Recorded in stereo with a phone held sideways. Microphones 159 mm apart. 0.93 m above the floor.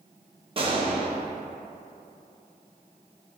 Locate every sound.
0.6 s a gunshot: 35° right (ahead or behind), 0.6 m